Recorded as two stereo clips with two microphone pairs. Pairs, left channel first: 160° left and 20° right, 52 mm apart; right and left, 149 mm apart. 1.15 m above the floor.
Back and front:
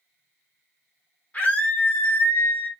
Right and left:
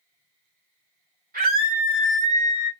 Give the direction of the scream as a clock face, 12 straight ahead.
9 o'clock.